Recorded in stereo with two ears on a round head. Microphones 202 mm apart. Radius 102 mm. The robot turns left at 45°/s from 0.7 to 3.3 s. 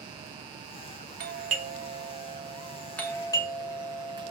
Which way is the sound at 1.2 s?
45° right (ahead or behind).